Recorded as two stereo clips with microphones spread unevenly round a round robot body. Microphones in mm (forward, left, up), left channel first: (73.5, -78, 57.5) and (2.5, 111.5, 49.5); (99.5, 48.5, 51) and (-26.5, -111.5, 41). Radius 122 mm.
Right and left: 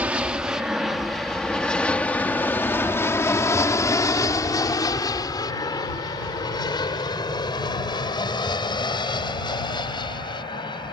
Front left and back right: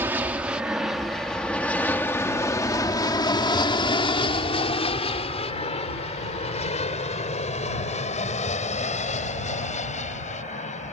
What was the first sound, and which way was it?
An aircraft, straight behind.